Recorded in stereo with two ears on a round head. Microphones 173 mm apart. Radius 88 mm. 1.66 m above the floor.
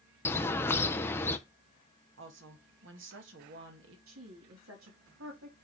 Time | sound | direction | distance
0.2 | a bird | 10° left (ahead or behind) | 0.6 m
2.2 | a woman speaking | 70° right (ahead or behind) | 1.7 m
4.1 | a woman speaking | 90° right | 4.5 m